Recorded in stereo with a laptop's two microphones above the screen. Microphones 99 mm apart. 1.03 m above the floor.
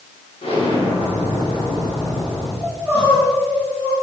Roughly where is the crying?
Centre.